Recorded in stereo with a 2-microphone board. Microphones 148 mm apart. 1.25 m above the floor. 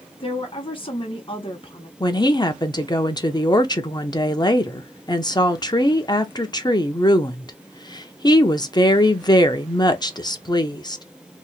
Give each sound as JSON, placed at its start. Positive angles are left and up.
{"t": 0.2, "sound": "a woman speaking", "side_deg": 35, "distance_m": 0.9}
{"t": 2.0, "sound": "a woman speaking", "side_deg": 30, "distance_m": 0.6}